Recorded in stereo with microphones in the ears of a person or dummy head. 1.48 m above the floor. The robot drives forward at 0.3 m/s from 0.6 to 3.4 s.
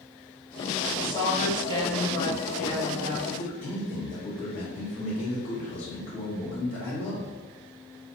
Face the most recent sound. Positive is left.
turn(degrees=45)  # may be behind; listen again after turning